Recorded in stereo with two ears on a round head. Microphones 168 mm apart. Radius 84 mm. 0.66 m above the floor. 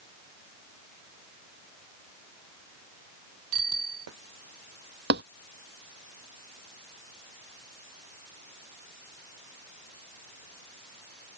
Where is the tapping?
60° right (ahead or behind).